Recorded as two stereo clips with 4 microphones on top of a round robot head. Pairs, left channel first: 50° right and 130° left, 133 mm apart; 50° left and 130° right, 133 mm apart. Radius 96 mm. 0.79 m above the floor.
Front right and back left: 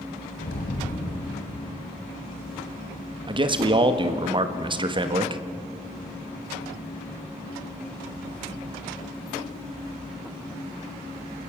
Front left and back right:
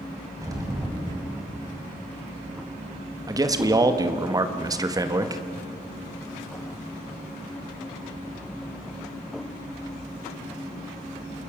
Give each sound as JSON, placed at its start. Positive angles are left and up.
{"t": 0.4, "sound": "an explosion", "azimuth_deg": -65, "distance_m": 3.5}
{"t": 3.3, "sound": "a man speaking", "azimuth_deg": 170, "distance_m": 1.6}